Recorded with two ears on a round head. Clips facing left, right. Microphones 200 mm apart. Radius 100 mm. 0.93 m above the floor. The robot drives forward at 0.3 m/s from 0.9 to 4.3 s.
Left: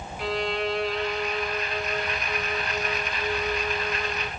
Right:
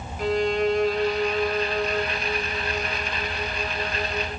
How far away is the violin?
About 0.7 m.